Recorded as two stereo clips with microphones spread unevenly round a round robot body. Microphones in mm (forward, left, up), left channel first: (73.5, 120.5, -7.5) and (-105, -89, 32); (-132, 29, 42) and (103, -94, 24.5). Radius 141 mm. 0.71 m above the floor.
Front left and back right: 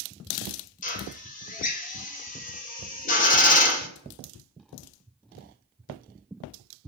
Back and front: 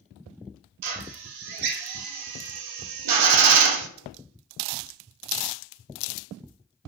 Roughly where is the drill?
Ahead.